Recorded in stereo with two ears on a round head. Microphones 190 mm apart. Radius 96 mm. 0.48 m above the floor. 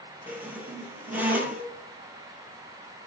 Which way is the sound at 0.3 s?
10° right (ahead or behind).